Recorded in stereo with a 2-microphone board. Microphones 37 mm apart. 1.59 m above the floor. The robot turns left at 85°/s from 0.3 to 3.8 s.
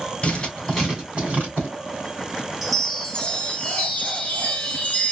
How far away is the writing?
About 2 m.